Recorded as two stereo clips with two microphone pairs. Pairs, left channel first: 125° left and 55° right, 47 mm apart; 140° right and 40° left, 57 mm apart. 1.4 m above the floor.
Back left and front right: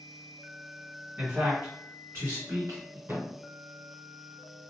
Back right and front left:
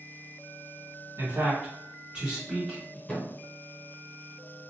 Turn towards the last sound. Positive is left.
turn(degrees=-60)